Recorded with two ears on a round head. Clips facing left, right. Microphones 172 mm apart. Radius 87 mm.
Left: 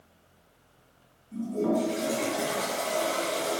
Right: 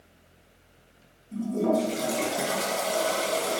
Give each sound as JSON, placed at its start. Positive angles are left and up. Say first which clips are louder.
{"t": 1.3, "sound": "a toilet flushing", "louder": "right 2 dB", "side_deg": -40, "distance_m": 3.0}